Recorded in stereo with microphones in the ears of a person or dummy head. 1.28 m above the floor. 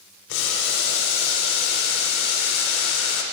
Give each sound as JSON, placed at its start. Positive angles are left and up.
{"t": 0.3, "sound": "boiling", "side_deg": 85, "distance_m": 3.5}